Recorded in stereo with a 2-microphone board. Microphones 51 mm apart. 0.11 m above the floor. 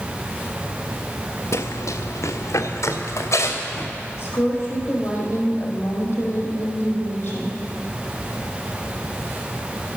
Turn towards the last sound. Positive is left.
turn(degrees=45)  # may be behind; listen again after turning